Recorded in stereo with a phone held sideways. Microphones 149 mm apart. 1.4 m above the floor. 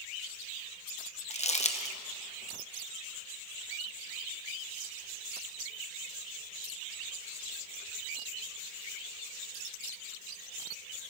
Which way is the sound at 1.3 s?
50° left (ahead or behind).